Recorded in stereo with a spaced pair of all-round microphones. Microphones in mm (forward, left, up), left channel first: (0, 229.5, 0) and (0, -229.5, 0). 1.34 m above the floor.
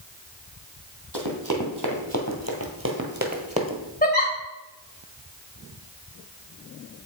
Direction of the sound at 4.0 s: 20° left (ahead or behind).